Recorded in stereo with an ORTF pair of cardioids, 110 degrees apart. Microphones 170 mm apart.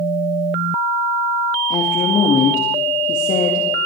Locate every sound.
1.7 s a woman speaking: 50° left, 2 m